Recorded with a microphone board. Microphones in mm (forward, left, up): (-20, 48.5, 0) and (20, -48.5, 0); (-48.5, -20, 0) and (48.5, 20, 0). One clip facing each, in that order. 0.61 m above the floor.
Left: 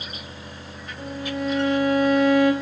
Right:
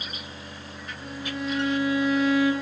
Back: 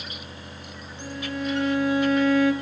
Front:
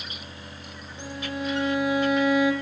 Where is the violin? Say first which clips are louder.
Left 5 dB, back 1 dB; 95° left, 1.8 m.